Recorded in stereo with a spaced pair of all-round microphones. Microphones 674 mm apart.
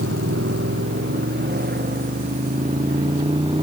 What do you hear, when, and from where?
0.0 s a motorcycle: 20° right (ahead or behind); by 3.6 s 5° right (ahead or behind)